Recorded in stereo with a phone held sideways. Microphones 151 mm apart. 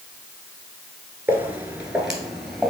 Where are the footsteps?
15° right (ahead or behind), 1.4 m; by 2.7 s 5° left (ahead or behind), 1.7 m.